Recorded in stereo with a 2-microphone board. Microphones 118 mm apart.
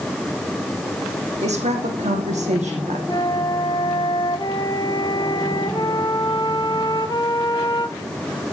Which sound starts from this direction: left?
A flute, at 3.1 s.